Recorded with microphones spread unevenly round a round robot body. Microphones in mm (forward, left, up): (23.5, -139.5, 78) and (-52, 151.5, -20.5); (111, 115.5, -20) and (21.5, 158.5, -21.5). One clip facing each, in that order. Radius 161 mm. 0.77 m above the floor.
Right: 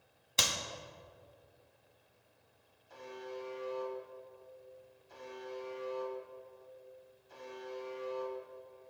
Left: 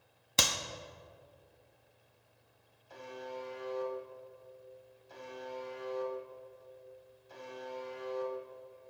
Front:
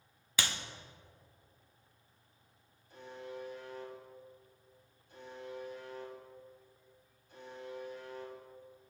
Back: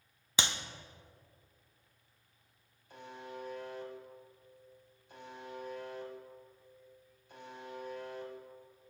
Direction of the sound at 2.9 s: 135° left.